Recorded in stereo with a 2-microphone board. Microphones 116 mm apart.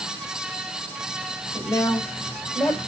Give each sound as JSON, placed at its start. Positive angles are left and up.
{"t": 1.5, "sound": "a woman speaking", "side_deg": 30, "distance_m": 5.0}